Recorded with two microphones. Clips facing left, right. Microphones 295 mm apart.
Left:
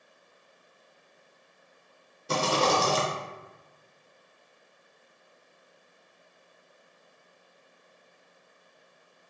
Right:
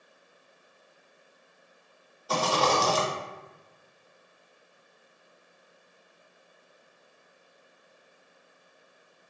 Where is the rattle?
30° left (ahead or behind), 0.7 m.